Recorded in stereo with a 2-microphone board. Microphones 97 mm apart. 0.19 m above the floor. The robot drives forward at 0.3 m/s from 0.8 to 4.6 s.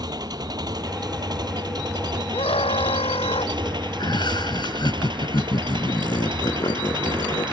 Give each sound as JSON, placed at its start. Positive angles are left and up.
{"t": 0.0, "sound": "an engine running", "side_deg": -45}
{"t": 2.3, "sound": "a scream", "side_deg": 80}
{"t": 4.0, "sound": "laughter", "side_deg": 50}